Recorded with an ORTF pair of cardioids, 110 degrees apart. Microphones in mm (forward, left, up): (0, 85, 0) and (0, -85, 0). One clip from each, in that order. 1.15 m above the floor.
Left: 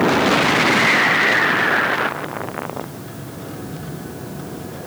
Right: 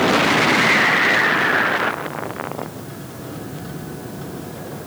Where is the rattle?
No rattle in this recording.